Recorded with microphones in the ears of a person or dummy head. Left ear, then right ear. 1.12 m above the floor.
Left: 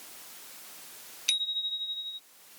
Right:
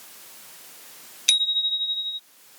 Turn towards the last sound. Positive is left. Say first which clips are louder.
# right 9 dB
turn(degrees=-15)  # may be behind; listen again after turning